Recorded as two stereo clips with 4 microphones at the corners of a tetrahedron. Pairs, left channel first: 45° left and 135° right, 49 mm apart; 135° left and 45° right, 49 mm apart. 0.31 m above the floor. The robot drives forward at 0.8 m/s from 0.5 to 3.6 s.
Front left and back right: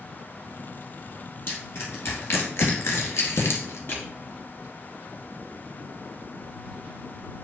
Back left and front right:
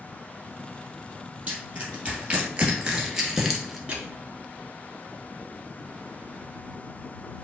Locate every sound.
1.5 s crushing: 15° left, 2.5 m; by 3.8 s 45° left, 1.0 m
3.9 s crushing: 20° left, 1.4 m